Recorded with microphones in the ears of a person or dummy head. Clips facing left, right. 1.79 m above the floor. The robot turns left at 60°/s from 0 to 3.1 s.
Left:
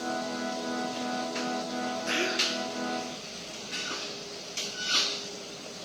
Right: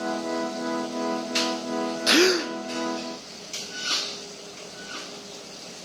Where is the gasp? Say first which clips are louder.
Right 11 dB; 80° right, 0.6 m; by 2.5 s 60° right (ahead or behind), 0.6 m.